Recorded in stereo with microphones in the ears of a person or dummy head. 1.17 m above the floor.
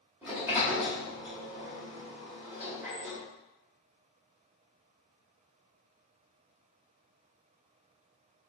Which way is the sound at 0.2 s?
5° right (ahead or behind).